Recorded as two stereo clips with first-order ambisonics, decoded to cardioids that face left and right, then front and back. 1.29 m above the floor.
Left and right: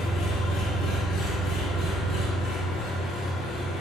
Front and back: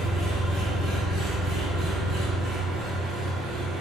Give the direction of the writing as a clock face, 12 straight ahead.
I don't hear writing.